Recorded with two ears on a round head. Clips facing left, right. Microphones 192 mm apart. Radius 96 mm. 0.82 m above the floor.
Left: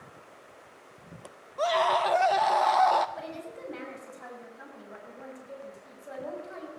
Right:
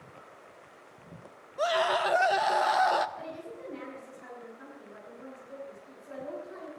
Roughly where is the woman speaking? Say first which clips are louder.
Left 2 dB; left.